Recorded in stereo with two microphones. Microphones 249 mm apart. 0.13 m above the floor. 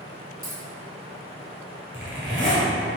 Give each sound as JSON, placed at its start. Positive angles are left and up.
{"t": 0.4, "sound": "a dropped coin", "side_deg": -60, "distance_m": 1.2}
{"t": 1.9, "sound": "a zipper", "side_deg": 5, "distance_m": 1.5}